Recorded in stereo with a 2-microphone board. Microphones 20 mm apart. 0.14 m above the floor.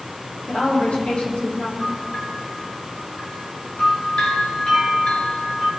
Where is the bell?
60° left (ahead or behind), 5 m.